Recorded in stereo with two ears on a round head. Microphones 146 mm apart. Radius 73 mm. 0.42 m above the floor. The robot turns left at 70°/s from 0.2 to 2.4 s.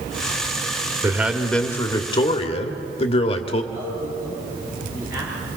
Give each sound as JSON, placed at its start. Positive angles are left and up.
{"t": 1.0, "sound": "a man speaking", "azimuth_deg": -155, "distance_m": 1.4}
{"t": 3.7, "sound": "a man speaking", "side_deg": -15, "distance_m": 8.0}